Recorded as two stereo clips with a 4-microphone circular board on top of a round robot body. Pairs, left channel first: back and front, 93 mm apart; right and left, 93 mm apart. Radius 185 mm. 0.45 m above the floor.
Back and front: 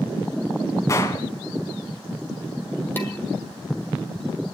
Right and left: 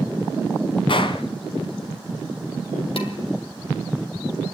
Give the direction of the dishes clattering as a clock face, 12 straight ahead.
4 o'clock.